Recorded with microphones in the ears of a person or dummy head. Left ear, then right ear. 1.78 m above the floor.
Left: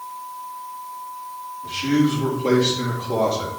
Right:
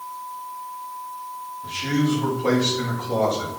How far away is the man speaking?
About 2.5 m.